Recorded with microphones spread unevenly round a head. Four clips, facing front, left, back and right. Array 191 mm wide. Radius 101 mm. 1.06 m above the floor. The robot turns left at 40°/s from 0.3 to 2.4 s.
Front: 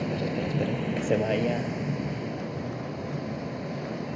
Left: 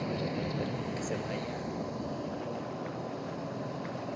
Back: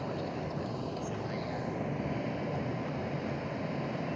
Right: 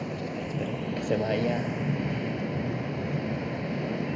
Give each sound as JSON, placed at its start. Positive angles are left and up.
{"t": 0.0, "sound": "a vehicle", "azimuth_deg": 0}